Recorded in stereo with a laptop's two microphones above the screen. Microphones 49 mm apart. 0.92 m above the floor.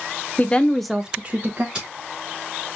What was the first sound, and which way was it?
A woman speaking, 35° left (ahead or behind).